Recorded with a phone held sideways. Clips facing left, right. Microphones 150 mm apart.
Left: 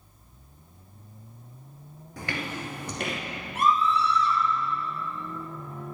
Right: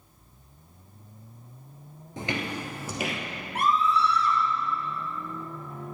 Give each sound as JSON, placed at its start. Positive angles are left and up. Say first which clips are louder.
{"t": 2.2, "sound": "footsteps", "louder": "right 2 dB", "side_deg": -25, "distance_m": 1.4}
{"t": 3.5, "sound": "a scream", "louder": "even", "side_deg": -60, "distance_m": 3.0}